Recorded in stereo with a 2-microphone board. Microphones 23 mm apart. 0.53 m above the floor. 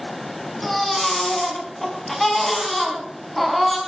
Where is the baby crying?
10° left (ahead or behind), 4 m.